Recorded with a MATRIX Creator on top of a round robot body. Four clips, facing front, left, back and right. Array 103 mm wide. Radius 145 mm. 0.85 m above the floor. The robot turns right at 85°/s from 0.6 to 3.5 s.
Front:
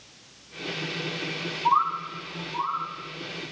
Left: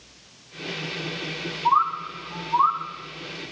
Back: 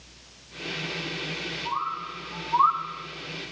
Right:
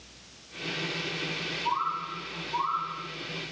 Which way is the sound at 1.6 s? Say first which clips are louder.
Left 9 dB, front 8 dB; 50° left.